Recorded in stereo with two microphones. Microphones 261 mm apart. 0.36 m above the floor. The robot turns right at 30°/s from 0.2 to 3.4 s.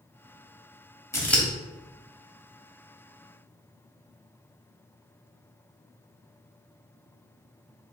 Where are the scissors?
10° left (ahead or behind), 0.9 m; by 1.4 s centre (ahead or behind), 0.9 m.